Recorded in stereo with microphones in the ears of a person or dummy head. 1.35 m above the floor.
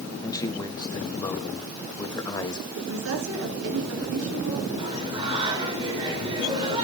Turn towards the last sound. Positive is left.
turn(degrees=-25)  # may be behind; listen again after turning